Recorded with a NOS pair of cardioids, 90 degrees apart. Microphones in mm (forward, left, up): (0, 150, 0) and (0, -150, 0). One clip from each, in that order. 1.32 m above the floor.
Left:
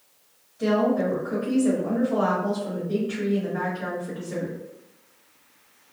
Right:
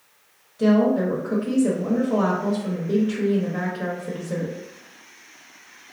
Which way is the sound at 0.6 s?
60° right.